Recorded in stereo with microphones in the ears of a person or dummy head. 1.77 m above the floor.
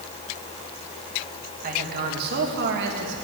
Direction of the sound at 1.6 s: 50° right (ahead or behind).